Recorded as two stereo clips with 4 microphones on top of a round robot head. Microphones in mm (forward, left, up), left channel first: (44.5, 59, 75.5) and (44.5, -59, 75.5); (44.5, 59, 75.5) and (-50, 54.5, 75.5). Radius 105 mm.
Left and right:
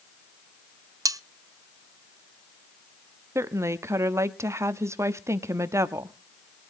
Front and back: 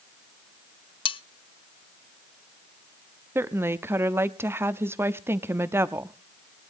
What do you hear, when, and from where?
1.1 s cutlery clinking: 30° right, 0.7 m
3.4 s a woman speaking: 135° right, 1.0 m